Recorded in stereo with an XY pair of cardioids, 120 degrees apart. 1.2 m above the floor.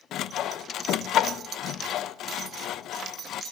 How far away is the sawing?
About 0.6 m.